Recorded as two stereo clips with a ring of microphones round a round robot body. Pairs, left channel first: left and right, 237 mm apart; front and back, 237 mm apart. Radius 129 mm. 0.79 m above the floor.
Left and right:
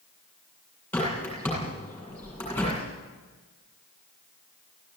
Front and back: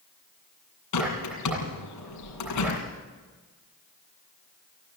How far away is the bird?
About 8 m.